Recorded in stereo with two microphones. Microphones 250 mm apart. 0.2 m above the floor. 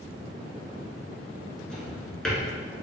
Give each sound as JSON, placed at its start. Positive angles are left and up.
{"t": 1.7, "sound": "a drawer", "side_deg": 5, "distance_m": 1.2}